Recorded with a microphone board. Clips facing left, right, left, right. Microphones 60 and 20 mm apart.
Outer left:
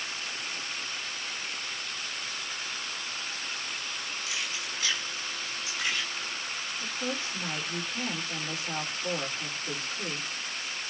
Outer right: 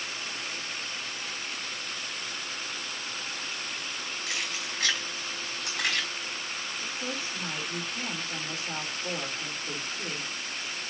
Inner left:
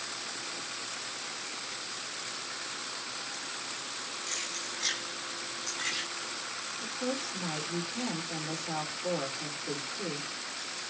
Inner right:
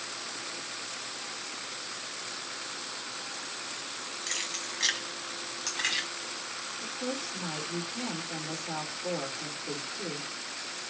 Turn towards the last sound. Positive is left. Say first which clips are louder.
# outer left 3 dB, inner left 1 dB
turn(degrees=5)  # may be behind; listen again after turning